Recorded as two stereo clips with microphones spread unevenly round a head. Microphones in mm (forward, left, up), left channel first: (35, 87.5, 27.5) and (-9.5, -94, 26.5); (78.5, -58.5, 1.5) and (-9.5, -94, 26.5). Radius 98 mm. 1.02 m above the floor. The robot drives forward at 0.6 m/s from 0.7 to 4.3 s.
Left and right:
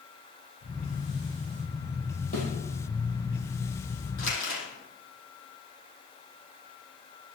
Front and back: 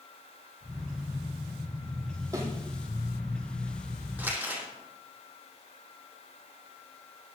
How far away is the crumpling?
About 8.5 m.